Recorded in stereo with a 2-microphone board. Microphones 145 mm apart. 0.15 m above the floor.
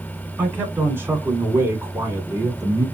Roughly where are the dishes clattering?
I don't hear dishes clattering.